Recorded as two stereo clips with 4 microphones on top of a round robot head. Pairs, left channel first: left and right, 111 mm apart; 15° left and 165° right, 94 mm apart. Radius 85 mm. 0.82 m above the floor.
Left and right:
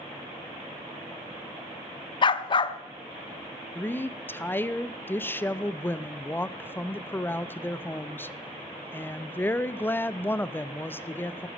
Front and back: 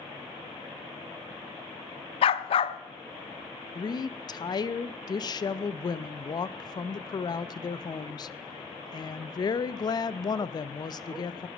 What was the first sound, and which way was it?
A dog barking, 40° left.